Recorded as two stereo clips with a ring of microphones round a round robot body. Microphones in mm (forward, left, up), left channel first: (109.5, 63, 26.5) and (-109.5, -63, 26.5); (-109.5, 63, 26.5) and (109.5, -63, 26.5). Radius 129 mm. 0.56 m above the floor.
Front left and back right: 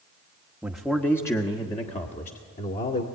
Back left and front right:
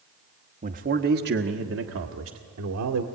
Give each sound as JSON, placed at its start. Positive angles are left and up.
{"t": 0.6, "sound": "a man speaking", "azimuth_deg": -65, "distance_m": 1.2}